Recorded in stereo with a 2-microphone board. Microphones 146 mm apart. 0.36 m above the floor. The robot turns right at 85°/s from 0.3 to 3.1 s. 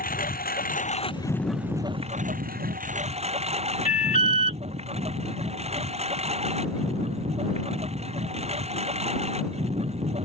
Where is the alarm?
55° left (ahead or behind).